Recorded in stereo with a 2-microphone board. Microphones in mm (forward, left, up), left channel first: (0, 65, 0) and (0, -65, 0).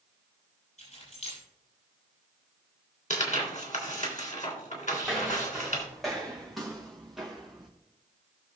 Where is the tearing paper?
70° left (ahead or behind), 3 m.